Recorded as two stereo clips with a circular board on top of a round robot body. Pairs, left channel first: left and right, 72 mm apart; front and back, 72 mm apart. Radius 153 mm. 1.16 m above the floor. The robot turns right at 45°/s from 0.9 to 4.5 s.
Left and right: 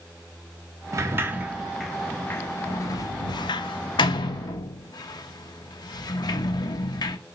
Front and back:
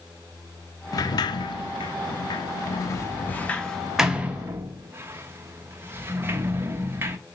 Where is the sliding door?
40° right, 0.9 m; by 7.2 s 120° left, 0.9 m.